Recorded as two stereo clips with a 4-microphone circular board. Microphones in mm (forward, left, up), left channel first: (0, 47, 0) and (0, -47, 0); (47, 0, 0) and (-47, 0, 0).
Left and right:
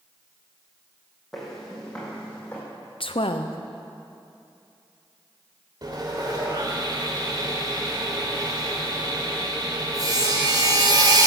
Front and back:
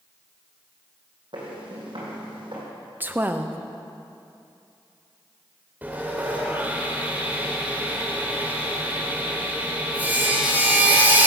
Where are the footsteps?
Straight behind, 4 m; by 2.6 s 160° left, 4 m.